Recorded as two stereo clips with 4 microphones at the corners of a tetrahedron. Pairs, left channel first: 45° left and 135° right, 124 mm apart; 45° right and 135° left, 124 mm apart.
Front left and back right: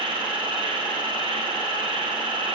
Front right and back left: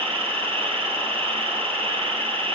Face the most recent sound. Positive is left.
turn(degrees=175)